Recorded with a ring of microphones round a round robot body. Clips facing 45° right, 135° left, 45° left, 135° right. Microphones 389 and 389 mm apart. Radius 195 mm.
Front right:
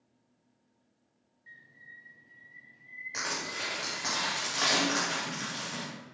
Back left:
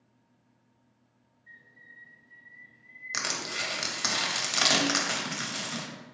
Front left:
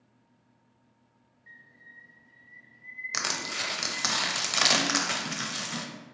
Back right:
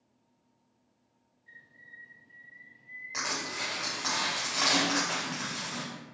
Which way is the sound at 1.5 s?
5° left.